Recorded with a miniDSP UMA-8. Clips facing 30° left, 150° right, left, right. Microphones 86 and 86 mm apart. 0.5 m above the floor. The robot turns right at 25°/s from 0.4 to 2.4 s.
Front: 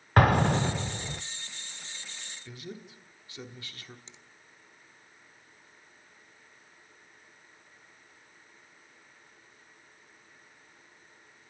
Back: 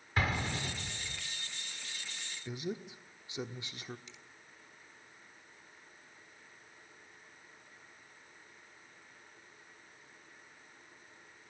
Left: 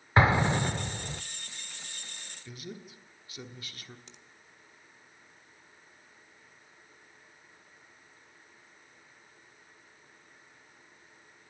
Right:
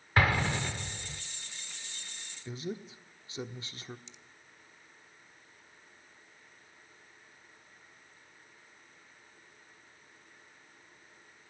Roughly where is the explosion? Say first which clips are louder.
Front 12 dB, left 4 dB; ahead left.